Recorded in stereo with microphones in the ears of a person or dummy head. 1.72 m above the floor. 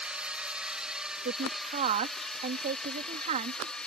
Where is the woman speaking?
45° right (ahead or behind).